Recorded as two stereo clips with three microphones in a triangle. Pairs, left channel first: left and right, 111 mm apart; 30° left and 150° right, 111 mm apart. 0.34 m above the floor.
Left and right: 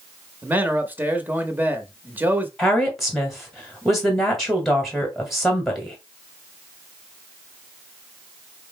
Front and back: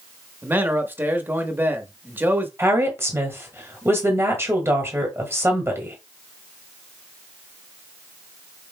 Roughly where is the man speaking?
Behind right.